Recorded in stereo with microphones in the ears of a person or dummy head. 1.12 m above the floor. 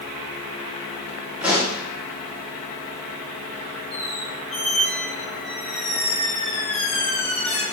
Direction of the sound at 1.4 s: 5° right (ahead or behind).